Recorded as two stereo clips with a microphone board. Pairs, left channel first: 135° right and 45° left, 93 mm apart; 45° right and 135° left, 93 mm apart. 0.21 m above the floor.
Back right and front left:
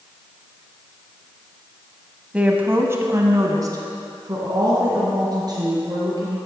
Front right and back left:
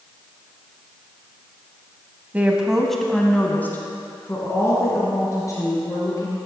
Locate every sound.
2.3 s a woman speaking: 100° left, 1.0 m; by 6.4 s 5° left, 3.5 m